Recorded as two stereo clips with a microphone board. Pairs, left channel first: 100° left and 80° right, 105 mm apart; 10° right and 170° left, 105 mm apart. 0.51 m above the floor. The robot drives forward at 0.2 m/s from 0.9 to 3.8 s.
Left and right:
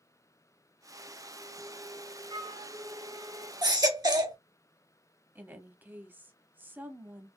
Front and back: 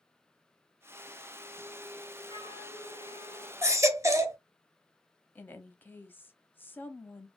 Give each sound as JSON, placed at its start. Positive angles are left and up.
{"t": 2.3, "sound": "a flute", "azimuth_deg": -65, "distance_m": 2.0}
{"t": 3.6, "sound": "a baby crying", "azimuth_deg": -125, "distance_m": 0.7}
{"t": 5.3, "sound": "a woman speaking", "azimuth_deg": -50, "distance_m": 0.7}